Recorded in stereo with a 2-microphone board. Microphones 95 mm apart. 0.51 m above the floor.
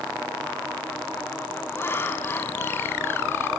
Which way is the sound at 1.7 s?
25° left (ahead or behind).